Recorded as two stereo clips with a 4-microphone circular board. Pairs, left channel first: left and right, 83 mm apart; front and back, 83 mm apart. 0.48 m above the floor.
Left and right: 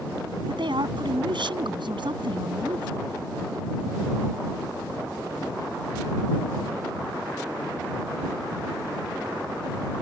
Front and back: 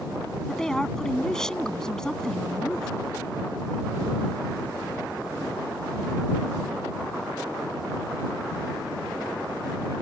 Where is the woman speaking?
80° right.